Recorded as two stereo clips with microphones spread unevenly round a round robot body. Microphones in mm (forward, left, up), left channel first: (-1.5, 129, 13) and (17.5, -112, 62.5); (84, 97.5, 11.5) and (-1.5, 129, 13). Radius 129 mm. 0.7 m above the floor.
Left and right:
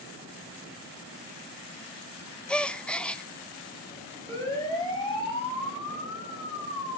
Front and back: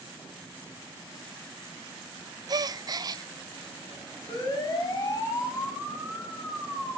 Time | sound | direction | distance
2.5 | a gasp | 165° left | 0.7 m
4.3 | a siren | 15° left | 7.5 m